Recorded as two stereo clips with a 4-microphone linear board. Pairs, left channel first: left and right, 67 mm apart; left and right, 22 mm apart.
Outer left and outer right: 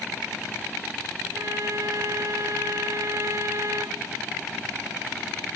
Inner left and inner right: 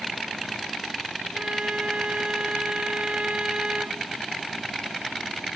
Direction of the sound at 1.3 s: 50° right (ahead or behind).